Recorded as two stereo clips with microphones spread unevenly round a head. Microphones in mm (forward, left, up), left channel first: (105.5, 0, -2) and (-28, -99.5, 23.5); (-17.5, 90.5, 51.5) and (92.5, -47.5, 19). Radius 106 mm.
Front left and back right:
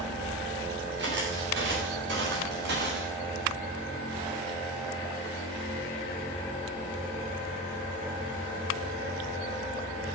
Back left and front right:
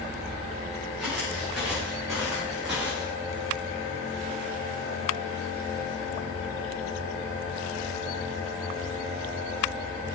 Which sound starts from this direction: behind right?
Footsteps, at 1.0 s.